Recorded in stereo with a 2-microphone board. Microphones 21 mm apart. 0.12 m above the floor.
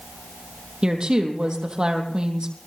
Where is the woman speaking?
40° right (ahead or behind), 3.5 m.